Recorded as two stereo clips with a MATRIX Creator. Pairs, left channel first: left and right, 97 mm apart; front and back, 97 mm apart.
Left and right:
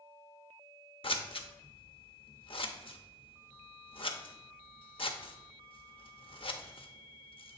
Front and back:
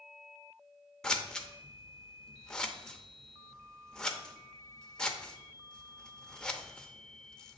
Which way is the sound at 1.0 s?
80° left.